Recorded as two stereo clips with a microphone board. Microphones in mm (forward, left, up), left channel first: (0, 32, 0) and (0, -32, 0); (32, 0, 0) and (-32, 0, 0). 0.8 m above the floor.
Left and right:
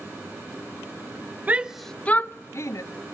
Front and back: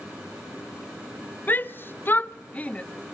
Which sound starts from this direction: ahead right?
A shout, at 1.5 s.